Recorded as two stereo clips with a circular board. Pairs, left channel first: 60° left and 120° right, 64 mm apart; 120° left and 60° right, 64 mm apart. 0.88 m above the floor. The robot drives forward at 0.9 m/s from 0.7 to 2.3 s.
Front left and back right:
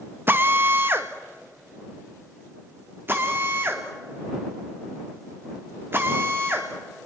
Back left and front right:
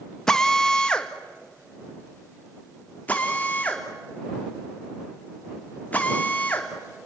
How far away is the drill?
About 1.1 m.